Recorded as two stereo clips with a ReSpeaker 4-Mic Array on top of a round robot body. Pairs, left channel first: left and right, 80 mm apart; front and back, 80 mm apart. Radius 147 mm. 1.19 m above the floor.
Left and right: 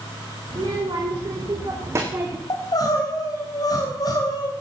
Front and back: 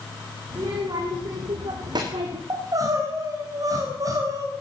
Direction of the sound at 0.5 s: 135° right.